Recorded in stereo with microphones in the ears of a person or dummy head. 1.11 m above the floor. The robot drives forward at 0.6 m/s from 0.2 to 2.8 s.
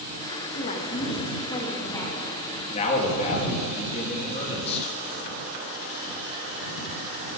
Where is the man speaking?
30° left (ahead or behind), 1.5 m.